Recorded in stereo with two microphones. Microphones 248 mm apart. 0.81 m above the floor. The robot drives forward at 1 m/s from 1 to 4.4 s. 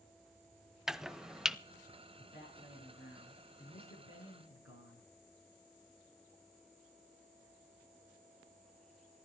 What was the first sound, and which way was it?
Chopping, 5° right (ahead or behind).